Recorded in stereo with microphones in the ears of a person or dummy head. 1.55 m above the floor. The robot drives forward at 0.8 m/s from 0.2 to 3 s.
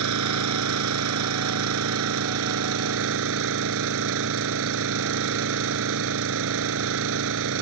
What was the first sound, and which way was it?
An engine running, 80° right.